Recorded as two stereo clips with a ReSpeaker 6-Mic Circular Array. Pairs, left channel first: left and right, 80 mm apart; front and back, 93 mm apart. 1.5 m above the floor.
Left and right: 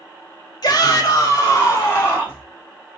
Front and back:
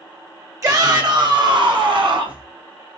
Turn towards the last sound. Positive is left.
turn(degrees=155)